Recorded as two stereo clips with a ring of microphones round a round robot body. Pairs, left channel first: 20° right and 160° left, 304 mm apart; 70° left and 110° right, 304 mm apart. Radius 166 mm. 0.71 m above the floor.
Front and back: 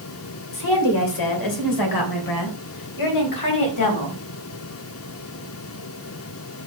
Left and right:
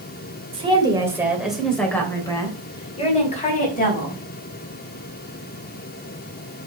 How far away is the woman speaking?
About 3 m.